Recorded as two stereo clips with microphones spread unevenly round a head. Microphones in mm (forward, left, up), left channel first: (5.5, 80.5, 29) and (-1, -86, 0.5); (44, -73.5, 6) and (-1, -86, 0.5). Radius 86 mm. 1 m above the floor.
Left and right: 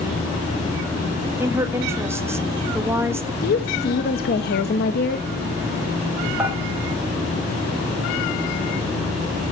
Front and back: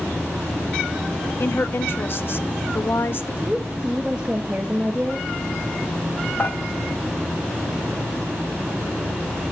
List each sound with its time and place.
1.4 s a woman speaking: 20° right, 1.5 m
3.4 s a woman speaking: 120° left, 1.1 m
6.4 s dishes clattering: 10° right, 4 m